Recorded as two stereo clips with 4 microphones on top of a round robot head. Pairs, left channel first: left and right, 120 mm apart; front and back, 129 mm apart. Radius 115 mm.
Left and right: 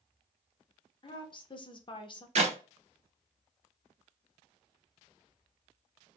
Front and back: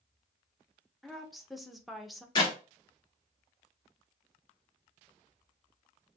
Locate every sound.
1.0 s a woman speaking: 90° left, 0.7 m
2.4 s a clap: 60° right, 0.7 m